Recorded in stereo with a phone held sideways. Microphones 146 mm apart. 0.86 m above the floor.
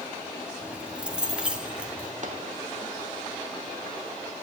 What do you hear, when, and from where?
0.6 s keys jangling: 5° right (ahead or behind), 1.5 m
2.2 s a microwave: 60° right (ahead or behind), 2 m